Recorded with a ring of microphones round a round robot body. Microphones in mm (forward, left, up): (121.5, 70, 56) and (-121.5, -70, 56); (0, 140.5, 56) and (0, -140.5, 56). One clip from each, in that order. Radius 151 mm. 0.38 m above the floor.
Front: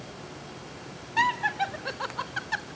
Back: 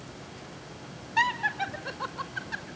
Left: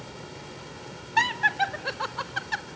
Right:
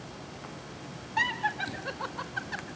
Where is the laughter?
125° left, 1.0 m; by 2.6 s 65° left, 1.1 m.